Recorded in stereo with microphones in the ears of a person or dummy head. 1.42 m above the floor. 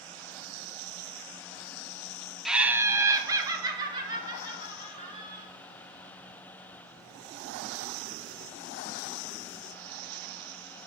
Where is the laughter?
Centre (ahead or behind), 0.6 m; by 5.4 s 25° right (ahead or behind), 4 m.